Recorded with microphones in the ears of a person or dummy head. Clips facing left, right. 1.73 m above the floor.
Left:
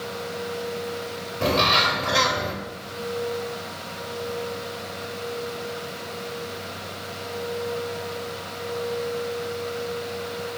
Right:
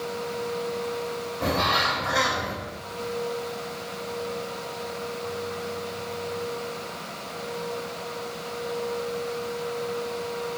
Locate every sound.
1.4 s a bird: 45° left (ahead or behind), 0.8 m